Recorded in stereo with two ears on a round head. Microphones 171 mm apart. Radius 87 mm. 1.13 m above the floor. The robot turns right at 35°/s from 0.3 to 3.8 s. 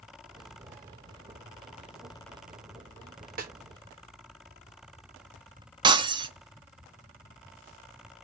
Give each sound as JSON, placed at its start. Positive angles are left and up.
{"t": 3.4, "sound": "a snare drum", "side_deg": -45, "distance_m": 0.9}
{"t": 5.8, "sound": "breaking glass", "side_deg": -25, "distance_m": 0.6}